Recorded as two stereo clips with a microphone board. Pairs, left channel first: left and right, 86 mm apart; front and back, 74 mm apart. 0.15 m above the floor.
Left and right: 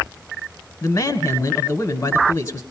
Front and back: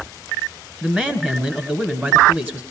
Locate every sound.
0.8 s a man speaking: 120° left, 1.3 m